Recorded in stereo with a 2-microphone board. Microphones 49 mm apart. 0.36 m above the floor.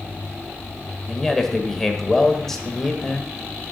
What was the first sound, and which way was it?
A man speaking, 5° left (ahead or behind).